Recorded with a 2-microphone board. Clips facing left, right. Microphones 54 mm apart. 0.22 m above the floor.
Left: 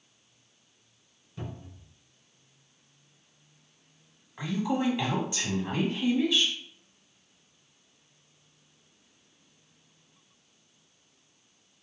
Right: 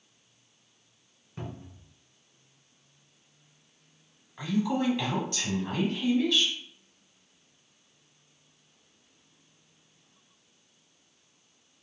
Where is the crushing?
I don't hear crushing.